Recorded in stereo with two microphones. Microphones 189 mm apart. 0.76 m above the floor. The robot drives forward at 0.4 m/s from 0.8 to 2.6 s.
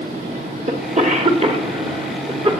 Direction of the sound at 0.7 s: 40° right (ahead or behind).